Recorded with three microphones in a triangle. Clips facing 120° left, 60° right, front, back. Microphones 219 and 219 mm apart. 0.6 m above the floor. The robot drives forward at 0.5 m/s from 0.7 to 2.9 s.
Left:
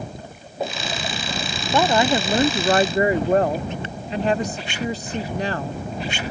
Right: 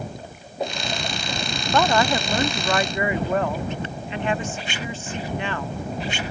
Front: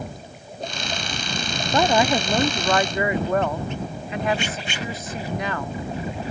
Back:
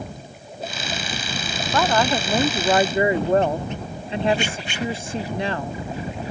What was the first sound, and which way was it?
A woman speaking, 50° left.